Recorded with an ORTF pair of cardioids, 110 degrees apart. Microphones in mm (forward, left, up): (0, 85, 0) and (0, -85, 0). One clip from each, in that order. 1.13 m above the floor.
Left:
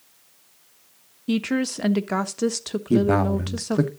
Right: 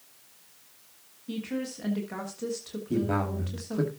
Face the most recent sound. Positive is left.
turn(degrees=50)